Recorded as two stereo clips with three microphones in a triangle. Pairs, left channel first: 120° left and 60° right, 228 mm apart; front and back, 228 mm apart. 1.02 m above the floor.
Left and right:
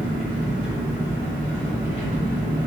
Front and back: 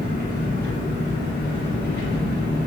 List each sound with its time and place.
0.0 s an engine running: 35° right, 2.0 m